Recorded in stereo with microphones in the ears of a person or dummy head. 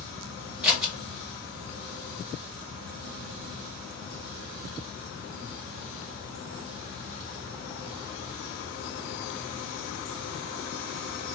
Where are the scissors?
5° right (ahead or behind), 1.3 m.